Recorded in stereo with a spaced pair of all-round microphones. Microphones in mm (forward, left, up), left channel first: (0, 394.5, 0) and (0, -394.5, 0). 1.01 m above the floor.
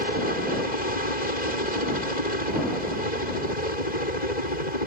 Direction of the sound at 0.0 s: 60° left (ahead or behind).